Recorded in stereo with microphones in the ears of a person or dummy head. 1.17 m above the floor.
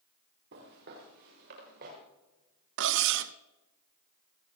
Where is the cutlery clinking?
60° right (ahead or behind), 0.6 m.